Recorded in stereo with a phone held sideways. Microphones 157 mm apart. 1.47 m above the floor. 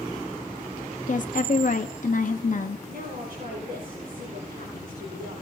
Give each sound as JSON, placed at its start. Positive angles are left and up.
{"t": 1.1, "sound": "a woman speaking", "side_deg": 60, "distance_m": 0.6}
{"t": 2.9, "sound": "a woman speaking", "side_deg": -75, "distance_m": 10.0}